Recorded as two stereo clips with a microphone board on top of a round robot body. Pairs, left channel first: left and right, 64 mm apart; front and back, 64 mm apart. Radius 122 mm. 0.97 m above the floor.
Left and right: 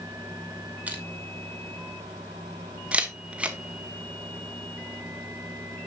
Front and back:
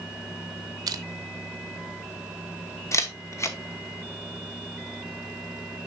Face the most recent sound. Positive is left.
turn(degrees=-20)